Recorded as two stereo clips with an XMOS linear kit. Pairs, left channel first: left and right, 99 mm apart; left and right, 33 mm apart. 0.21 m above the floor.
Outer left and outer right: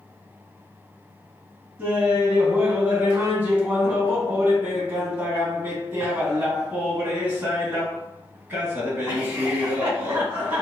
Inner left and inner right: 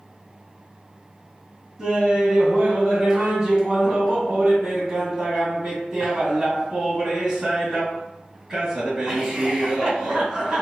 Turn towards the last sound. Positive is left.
turn(degrees=-20)  # may be behind; listen again after turning